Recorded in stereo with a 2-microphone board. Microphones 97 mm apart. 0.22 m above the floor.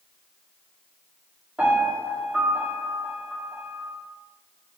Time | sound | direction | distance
1.6 | a piano | 15° right (ahead or behind) | 2.5 m